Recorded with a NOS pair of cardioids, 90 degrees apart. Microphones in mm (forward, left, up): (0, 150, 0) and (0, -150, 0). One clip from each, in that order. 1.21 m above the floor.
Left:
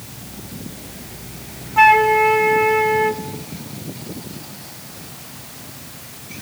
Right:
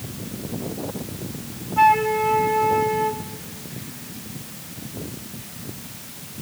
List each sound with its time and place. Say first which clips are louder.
1.8 s a flute: left 5 dB; 40° left, 1.1 m